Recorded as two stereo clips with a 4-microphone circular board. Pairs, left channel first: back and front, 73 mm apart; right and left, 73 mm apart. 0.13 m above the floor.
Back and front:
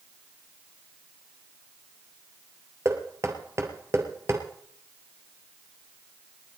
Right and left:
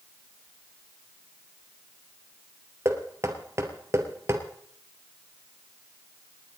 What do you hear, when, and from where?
2.9 s knocking: 45° left, 2 m